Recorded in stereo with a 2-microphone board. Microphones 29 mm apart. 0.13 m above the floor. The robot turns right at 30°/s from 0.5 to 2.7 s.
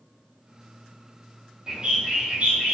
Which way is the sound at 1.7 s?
155° right.